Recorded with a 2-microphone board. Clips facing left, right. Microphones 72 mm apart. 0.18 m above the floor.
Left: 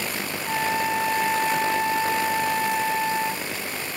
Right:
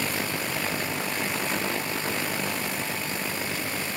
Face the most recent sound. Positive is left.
turn(degrees=85)